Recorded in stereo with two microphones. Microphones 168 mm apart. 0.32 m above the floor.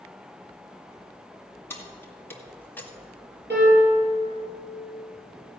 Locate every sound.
1.7 s keys jangling: 15° left (ahead or behind), 2 m; by 2.9 s 10° left (ahead or behind), 1.4 m
3.5 s a piano: 80° right, 5.5 m